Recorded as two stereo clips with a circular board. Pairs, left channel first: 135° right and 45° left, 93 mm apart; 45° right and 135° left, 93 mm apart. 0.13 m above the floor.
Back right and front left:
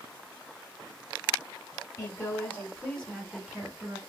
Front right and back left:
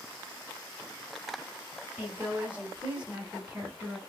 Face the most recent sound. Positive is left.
turn(degrees=80)